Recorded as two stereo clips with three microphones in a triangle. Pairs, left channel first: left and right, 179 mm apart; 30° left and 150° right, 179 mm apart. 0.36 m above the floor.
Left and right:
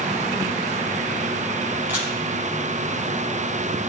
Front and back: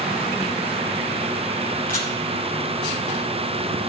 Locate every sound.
1.9 s a camera shutter: 10° right, 5 m